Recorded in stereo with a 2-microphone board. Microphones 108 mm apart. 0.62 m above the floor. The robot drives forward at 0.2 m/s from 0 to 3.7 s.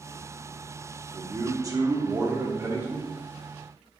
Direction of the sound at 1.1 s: 35° right (ahead or behind).